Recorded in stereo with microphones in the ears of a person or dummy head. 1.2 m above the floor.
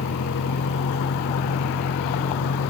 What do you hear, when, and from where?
0.0 s a vehicle: 75° left (ahead or behind)